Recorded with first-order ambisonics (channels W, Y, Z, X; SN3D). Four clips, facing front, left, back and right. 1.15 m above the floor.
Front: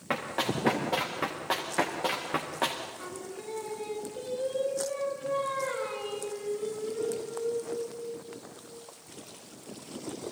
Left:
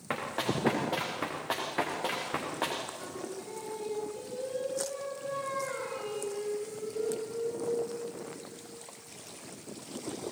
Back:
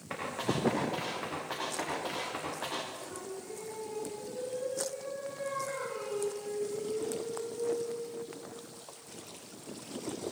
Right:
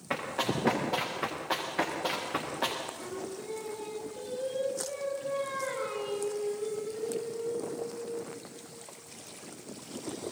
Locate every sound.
0.1 s running footsteps: 30° left, 8.5 m
3.0 s singing: 10° left, 7.5 m